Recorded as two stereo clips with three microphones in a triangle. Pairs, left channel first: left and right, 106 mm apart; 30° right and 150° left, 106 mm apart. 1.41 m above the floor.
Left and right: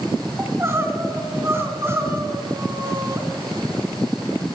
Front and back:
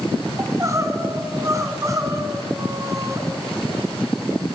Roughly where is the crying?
Behind right.